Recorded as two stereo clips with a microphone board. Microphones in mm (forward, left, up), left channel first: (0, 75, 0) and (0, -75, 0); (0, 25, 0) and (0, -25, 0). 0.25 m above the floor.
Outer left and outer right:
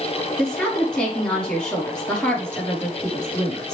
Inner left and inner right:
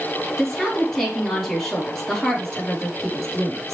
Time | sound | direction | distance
0.4 | a woman speaking | 5° left (ahead or behind) | 5 m